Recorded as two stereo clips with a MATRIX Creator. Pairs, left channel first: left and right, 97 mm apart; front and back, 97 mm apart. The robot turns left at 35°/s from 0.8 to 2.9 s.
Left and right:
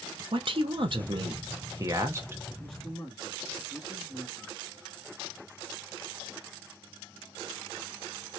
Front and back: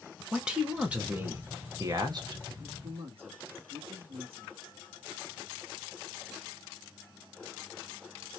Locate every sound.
0.3 s a man speaking: 100° right, 0.9 m; by 2.4 s 155° right, 0.9 m
2.6 s a man speaking: 175° right, 1.6 m; by 4.5 s 170° left, 1.6 m